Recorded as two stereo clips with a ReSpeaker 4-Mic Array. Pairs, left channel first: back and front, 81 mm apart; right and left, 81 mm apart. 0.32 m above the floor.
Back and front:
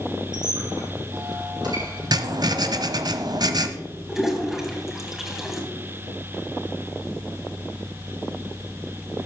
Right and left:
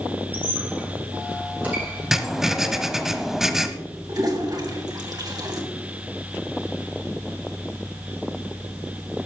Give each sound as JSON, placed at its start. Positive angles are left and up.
{"t": 0.3, "sound": "a squeak", "azimuth_deg": 20, "distance_m": 7.5}
{"t": 2.1, "sound": "writing", "azimuth_deg": 5, "distance_m": 1.0}
{"t": 4.1, "sound": "a toilet flushing", "azimuth_deg": 85, "distance_m": 2.5}